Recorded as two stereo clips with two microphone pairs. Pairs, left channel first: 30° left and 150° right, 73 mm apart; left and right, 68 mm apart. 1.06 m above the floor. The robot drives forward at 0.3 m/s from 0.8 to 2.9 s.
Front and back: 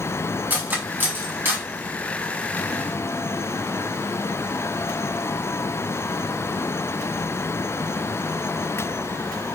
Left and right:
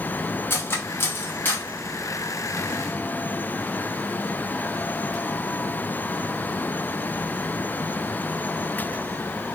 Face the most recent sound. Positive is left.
turn(degrees=160)